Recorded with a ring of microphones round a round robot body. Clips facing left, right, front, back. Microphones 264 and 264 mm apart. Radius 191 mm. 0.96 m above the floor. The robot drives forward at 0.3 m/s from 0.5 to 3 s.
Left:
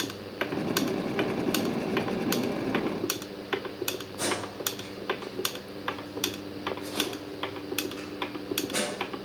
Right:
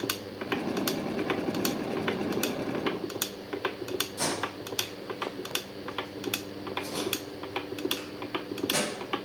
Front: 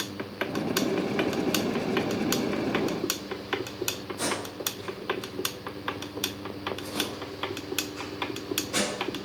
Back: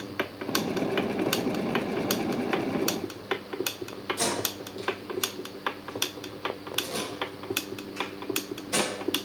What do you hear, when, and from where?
4.2 s tape being pulled: 165° right, 1.5 m